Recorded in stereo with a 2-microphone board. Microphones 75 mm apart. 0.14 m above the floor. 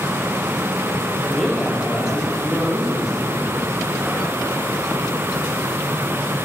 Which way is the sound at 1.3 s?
5° left (ahead or behind).